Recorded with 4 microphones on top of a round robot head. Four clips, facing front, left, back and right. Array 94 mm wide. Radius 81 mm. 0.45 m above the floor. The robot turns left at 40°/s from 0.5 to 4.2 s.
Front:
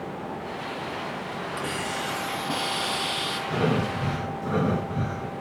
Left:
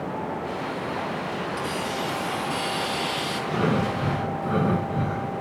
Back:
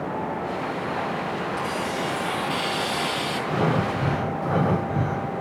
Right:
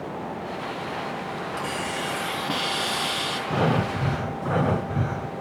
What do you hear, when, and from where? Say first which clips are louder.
1.6 s a hiss: left 1 dB, back 4 dB; 30° right, 4 m; by 3.4 s 105° right, 4 m
3.5 s breathing: right 1 dB, back 1 dB; 105° right, 2.5 m; by 5.3 s 130° right, 2.5 m